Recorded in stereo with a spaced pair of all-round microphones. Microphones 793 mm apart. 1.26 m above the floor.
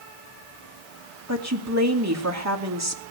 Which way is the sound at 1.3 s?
20° right (ahead or behind).